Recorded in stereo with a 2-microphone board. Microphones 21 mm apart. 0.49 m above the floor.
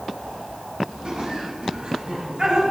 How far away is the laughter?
About 2.5 m.